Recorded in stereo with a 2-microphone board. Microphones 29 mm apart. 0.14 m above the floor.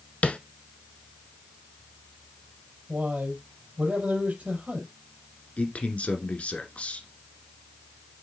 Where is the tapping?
45° left (ahead or behind), 0.7 m.